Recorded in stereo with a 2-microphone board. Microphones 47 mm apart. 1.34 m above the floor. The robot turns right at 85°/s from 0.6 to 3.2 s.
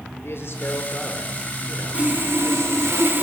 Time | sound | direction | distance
0.2 | a man speaking | 120° left | 5 m
1.9 | sawing | 155° right | 4 m